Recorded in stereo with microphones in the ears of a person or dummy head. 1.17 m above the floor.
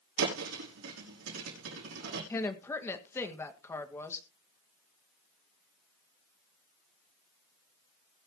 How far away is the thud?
About 5.5 m.